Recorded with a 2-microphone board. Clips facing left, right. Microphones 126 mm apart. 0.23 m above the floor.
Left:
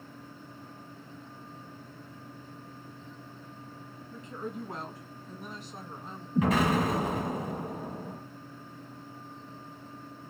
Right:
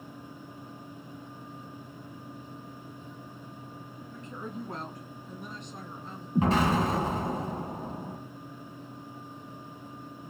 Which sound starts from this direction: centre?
A woman speaking, at 4.1 s.